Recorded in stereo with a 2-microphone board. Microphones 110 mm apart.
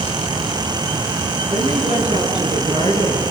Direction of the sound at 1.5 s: 70° right (ahead or behind).